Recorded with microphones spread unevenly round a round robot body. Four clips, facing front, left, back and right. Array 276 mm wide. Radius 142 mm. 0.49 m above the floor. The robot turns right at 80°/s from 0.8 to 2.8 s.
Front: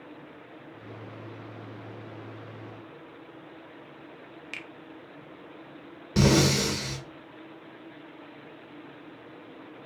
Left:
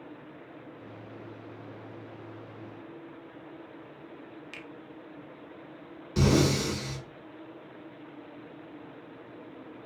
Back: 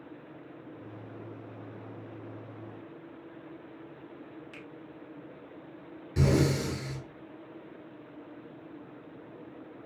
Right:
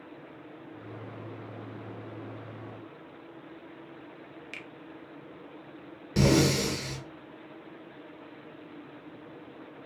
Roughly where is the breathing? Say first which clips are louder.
Right 1 dB, front 4 dB; ahead.